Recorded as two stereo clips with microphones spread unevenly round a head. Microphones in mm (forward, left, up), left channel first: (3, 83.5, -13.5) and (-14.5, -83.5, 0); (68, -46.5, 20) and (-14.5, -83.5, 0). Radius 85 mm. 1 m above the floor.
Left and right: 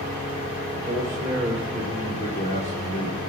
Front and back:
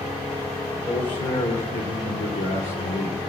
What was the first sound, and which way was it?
A man speaking, 35° right.